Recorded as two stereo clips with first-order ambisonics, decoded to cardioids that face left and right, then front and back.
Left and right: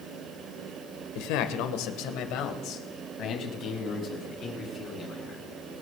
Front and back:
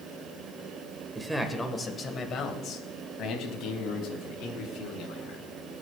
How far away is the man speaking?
About 1.3 m.